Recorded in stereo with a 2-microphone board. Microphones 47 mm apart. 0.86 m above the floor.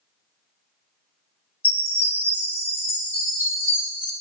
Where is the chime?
60° left (ahead or behind), 1.8 m.